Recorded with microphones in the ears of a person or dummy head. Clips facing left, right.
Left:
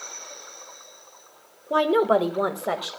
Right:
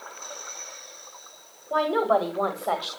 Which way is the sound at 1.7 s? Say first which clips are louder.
Left 3 dB; 40° left (ahead or behind).